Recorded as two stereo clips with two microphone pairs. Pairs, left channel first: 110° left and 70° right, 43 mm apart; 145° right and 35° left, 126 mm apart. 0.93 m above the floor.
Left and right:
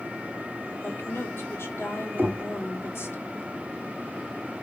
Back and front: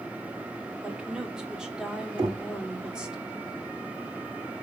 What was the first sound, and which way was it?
A woman speaking, 120° left.